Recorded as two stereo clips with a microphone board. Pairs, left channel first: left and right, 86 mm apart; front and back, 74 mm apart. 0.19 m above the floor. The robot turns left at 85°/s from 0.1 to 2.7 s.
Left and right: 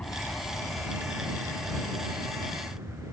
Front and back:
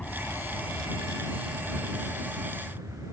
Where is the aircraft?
45° left; by 3.1 s 145° right.